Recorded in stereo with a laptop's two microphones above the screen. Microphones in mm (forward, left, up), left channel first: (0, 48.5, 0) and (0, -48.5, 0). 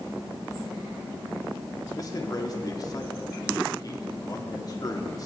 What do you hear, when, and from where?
2.0 s a man speaking: 40° left (ahead or behind), 2 m